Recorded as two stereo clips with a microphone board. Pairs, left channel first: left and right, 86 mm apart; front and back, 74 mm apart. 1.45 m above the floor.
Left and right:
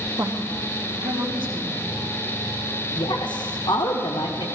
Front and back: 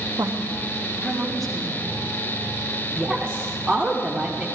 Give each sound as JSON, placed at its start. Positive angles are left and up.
{"t": 0.2, "sound": "a woman speaking", "azimuth_deg": -140, "distance_m": 0.8}
{"t": 3.0, "sound": "a woman speaking", "azimuth_deg": 85, "distance_m": 0.9}